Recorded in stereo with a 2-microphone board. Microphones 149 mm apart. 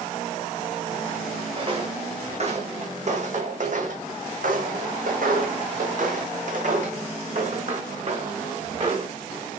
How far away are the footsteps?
About 2.5 m.